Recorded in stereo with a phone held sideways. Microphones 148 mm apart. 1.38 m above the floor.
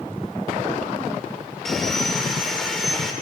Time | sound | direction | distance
1.6 | sawing | centre (ahead or behind) | 1.5 m